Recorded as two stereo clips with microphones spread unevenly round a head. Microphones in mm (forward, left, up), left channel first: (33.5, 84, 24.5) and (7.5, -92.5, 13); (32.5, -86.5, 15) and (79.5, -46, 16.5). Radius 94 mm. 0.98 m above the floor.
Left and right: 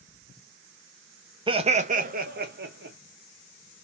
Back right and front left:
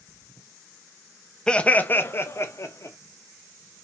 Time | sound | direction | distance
1.5 | laughter | 75° right | 0.6 m